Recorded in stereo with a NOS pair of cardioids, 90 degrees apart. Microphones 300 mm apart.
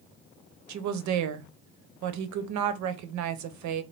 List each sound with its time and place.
0.7 s a woman speaking: 70° right, 0.6 m